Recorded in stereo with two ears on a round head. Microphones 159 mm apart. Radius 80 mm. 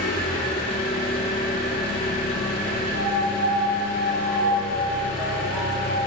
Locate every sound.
0.0 s an engine running: 55° left (ahead or behind), 2.5 m
2.9 s a piano: 35° right (ahead or behind), 2.5 m